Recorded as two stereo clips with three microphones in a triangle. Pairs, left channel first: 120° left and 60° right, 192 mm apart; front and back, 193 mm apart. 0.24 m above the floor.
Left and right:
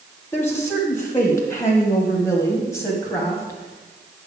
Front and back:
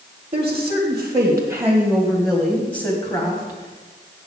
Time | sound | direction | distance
0.3 | a woman speaking | 175° right | 1.7 m